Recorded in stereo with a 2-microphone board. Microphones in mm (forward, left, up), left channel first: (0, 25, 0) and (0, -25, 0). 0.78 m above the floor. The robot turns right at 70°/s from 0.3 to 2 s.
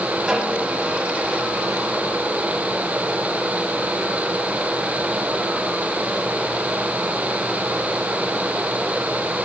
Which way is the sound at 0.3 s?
20° right (ahead or behind).